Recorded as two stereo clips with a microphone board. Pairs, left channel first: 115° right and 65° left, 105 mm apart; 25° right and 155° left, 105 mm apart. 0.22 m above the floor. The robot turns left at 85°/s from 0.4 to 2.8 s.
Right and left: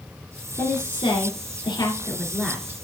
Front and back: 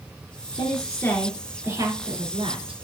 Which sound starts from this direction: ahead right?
A woman speaking, at 0.6 s.